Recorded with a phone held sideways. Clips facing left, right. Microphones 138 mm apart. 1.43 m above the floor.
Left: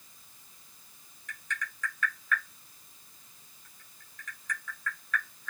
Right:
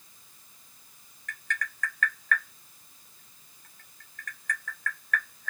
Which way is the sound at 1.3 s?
75° right (ahead or behind).